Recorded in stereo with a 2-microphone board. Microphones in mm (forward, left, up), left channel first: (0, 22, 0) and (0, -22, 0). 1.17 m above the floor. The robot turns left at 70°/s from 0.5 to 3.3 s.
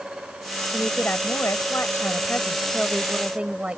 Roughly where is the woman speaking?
Behind left.